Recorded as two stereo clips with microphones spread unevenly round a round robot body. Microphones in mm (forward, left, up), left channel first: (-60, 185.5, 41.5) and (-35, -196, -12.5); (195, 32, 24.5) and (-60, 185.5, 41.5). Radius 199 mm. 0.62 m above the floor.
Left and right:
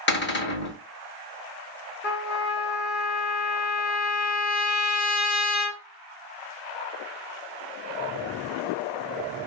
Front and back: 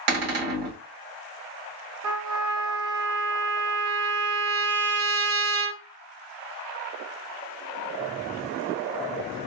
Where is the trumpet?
160° left, 1.1 m.